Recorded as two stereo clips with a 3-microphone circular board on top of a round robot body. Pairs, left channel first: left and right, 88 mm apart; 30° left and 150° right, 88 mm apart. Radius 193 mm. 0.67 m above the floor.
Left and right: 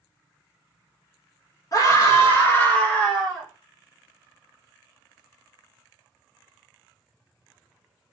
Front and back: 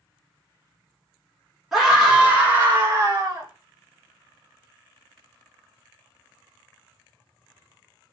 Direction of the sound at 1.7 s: 120° left.